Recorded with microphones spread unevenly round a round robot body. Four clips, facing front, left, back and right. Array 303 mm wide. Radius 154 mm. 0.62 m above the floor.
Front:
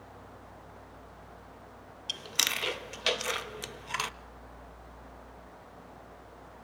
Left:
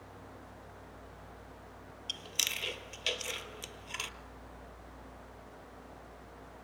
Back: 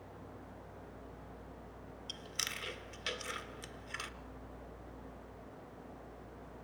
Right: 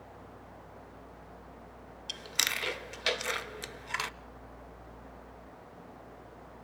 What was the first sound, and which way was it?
Chewing, 20° right.